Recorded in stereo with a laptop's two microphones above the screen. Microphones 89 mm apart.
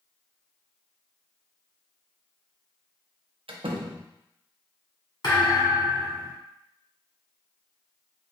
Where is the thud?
55° left (ahead or behind), 1.7 m.